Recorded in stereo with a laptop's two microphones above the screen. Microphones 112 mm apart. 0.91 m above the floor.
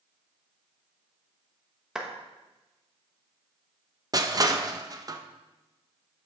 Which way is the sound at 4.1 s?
35° right (ahead or behind).